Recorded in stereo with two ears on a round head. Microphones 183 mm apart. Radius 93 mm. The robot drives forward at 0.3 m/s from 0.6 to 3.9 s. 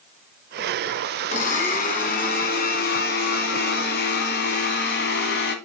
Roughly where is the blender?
Left.